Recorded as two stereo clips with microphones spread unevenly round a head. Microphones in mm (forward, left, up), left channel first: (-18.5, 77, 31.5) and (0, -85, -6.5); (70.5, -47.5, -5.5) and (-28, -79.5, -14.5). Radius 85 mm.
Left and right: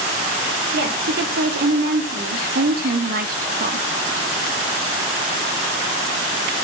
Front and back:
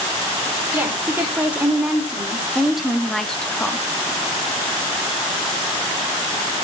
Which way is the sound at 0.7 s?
90° right.